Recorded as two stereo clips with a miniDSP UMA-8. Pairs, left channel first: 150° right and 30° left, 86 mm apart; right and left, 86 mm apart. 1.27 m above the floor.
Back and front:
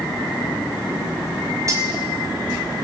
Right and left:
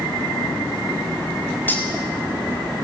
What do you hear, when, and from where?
1.7 s cutlery clinking: 20° right, 6 m